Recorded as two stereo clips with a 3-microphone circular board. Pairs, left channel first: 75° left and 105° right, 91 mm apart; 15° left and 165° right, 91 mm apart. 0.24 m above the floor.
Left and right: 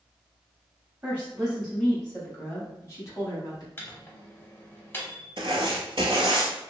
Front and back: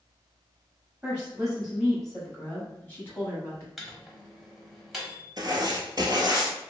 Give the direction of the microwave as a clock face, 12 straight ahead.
8 o'clock.